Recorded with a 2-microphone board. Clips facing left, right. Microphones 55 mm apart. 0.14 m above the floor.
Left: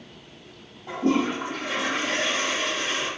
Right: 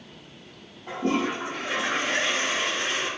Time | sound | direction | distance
0.9 | a toilet flushing | 35° right (ahead or behind) | 1.7 m